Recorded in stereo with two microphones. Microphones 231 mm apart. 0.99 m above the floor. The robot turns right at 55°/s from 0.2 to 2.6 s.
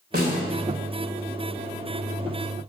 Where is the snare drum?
45° right (ahead or behind), 3 m; by 0.4 s 55° right (ahead or behind), 3 m.